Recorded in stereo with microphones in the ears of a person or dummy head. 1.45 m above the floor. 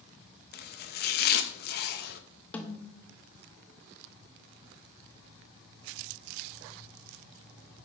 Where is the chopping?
50° left (ahead or behind), 0.5 m.